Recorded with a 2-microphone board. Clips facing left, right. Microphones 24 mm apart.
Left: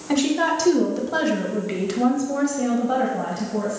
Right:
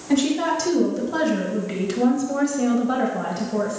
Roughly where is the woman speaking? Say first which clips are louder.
Even; left.